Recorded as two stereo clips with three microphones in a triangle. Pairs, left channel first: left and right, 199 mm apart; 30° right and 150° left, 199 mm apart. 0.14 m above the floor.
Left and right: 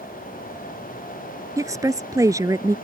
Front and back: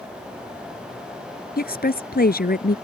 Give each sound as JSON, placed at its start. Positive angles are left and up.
{"t": 1.6, "sound": "a woman speaking", "azimuth_deg": -20}